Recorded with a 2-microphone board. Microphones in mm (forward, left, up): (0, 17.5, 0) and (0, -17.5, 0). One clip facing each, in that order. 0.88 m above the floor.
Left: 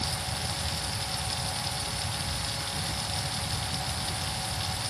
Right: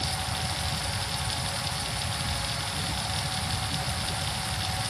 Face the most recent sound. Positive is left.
No sound to turn to.